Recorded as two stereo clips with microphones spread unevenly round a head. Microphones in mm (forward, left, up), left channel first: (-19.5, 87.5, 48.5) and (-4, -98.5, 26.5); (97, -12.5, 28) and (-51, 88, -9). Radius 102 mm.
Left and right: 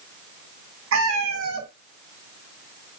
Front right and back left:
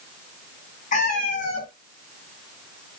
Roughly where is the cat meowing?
Right.